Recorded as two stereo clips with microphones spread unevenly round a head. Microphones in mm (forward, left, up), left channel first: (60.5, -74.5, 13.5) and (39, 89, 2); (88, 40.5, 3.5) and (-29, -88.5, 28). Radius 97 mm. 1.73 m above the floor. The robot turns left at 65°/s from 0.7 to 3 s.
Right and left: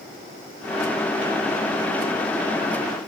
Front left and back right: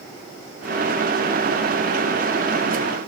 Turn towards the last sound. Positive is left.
No sound to turn to.